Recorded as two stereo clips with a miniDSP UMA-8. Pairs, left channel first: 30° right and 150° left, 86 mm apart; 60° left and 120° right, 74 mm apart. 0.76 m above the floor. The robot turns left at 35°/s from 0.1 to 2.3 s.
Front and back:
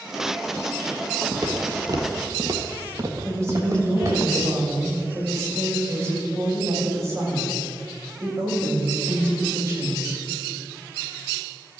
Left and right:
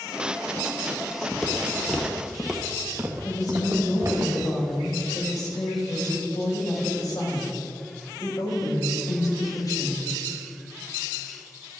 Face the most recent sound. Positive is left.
turn(degrees=90)